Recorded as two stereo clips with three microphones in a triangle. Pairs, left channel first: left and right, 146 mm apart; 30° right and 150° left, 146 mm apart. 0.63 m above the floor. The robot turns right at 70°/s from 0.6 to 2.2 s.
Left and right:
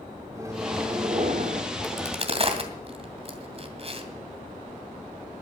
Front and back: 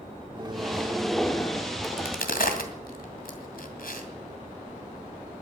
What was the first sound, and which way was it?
A microwave, 155° right.